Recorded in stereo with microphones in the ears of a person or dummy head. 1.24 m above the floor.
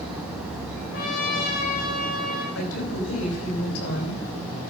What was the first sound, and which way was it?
A trumpet, 50° left (ahead or behind).